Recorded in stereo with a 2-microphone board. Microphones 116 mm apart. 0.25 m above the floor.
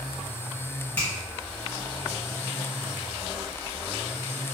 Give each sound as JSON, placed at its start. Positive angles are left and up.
{"t": 1.0, "sound": "a finger snap", "side_deg": 20, "distance_m": 1.7}